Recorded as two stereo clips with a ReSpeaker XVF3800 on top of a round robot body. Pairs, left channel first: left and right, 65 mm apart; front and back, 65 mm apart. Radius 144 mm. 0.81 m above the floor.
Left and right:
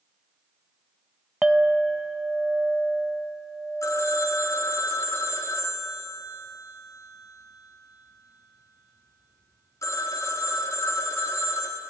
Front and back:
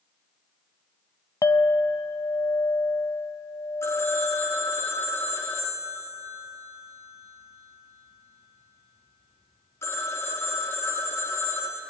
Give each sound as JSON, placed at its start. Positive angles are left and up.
{"t": 1.4, "sound": "a clink", "azimuth_deg": -10, "distance_m": 0.6}
{"t": 3.8, "sound": "a phone ringing", "azimuth_deg": 50, "distance_m": 0.9}